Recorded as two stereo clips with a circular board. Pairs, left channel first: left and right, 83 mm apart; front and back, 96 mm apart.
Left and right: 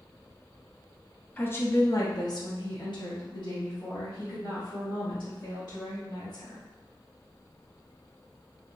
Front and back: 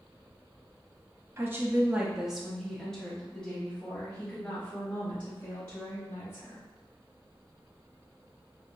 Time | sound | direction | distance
1.4 | a woman speaking | 140° left | 0.6 m